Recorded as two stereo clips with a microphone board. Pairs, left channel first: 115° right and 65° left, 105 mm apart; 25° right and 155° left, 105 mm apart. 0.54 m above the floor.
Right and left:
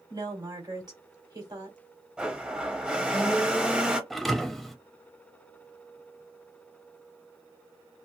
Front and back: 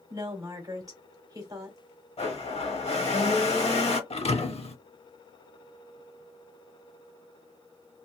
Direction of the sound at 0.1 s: 110° left.